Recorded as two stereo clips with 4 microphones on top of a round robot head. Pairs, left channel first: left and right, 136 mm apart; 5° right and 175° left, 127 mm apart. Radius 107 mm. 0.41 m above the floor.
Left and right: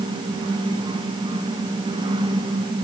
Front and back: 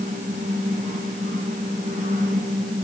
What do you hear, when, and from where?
Only background noise.